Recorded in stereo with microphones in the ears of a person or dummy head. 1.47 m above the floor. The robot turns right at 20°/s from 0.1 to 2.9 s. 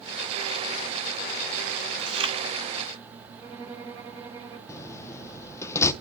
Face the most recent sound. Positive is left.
turn(degrees=15)  # may be behind; listen again after turning